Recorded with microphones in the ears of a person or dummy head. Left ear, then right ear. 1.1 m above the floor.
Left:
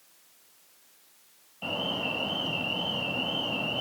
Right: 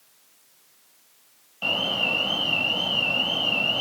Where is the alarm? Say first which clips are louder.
Right 7 dB; 35° right (ahead or behind), 5.5 m.